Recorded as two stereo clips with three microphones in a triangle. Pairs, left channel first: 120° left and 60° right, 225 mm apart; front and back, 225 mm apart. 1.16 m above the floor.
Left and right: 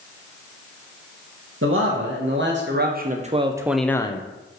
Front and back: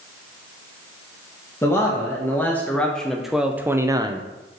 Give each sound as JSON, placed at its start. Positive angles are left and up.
{"t": 1.6, "sound": "a man speaking", "azimuth_deg": -75, "distance_m": 1.6}